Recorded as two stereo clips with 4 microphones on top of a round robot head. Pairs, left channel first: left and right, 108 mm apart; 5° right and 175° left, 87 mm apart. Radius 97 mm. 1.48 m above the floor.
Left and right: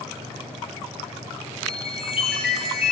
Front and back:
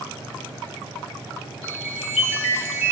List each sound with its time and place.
1.6 s a chime: 10° right, 1.3 m